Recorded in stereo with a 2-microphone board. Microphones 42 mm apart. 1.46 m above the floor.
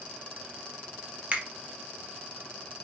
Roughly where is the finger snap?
Right.